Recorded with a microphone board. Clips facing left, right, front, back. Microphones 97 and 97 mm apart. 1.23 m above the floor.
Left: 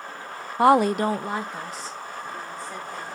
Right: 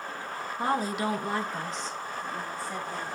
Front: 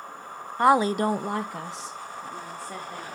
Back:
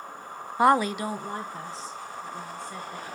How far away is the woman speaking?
About 0.5 m.